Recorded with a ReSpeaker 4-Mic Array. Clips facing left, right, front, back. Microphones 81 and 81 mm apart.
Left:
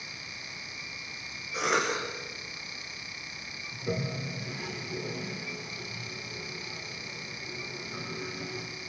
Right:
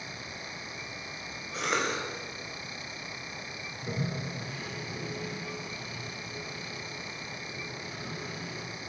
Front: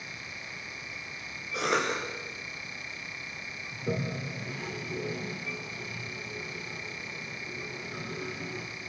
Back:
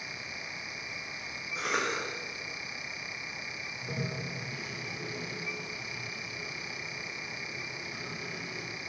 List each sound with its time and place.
1.5 s a cough: 5° left, 7.5 m
3.7 s a toilet flushing: 20° left, 8.5 m